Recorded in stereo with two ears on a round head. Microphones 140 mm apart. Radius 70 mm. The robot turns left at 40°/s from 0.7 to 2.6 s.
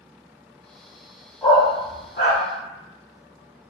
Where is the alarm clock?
No alarm clock in this recording.